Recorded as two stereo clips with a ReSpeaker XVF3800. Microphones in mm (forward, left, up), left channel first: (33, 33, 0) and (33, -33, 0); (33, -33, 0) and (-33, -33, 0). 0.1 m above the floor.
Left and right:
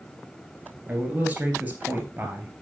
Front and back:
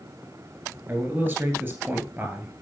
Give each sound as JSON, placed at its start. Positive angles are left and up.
{"t": 0.9, "sound": "a man speaking", "azimuth_deg": -140, "distance_m": 1.9}